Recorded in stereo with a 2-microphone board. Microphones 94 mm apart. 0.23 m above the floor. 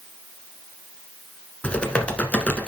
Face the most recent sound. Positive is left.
turn(degrees=15)  # may be behind; listen again after turning